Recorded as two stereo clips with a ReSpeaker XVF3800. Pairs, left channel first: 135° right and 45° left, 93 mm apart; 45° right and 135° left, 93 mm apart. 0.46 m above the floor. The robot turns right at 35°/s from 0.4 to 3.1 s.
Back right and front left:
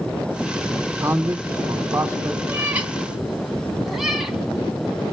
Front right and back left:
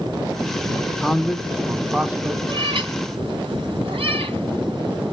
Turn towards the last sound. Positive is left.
turn(degrees=135)